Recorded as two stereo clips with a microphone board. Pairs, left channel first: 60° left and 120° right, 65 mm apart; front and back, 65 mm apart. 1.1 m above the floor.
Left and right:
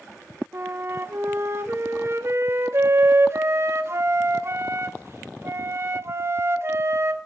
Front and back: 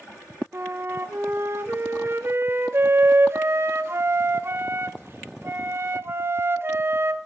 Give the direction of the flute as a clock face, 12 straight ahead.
5 o'clock.